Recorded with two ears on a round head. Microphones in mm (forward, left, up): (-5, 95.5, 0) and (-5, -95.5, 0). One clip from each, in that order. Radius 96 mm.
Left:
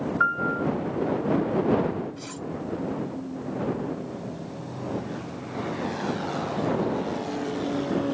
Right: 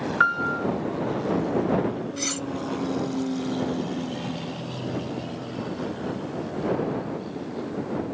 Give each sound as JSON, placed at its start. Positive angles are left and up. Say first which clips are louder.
{"t": 0.2, "sound": "a piano", "louder": "right 2 dB", "side_deg": -75}
{"t": 2.2, "sound": "cutlery clinking", "louder": "right 8 dB", "side_deg": -65}